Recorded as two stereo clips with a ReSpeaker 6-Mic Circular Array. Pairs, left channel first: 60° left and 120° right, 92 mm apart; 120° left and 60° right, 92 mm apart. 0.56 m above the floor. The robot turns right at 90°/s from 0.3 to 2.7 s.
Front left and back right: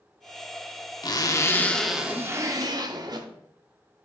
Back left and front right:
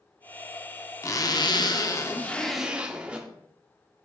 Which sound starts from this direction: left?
A zipper, at 1.0 s.